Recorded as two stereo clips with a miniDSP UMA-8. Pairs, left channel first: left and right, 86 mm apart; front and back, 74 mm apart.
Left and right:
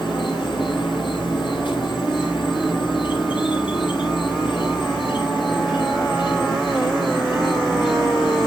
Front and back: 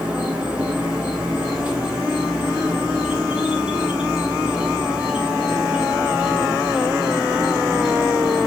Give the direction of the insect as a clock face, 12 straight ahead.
8 o'clock.